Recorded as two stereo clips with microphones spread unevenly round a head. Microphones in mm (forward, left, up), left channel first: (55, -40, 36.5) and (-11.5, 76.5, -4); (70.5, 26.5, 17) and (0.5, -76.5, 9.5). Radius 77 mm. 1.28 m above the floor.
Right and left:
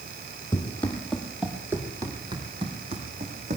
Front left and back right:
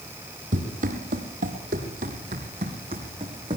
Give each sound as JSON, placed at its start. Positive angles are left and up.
{"t": 0.5, "sound": "running footsteps", "azimuth_deg": -120, "distance_m": 2.5}